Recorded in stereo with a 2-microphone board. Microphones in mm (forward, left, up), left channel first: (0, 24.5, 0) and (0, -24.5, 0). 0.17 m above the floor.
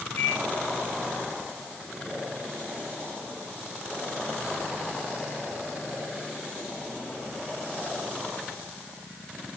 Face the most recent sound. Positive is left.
turn(degrees=70)  # may be behind; listen again after turning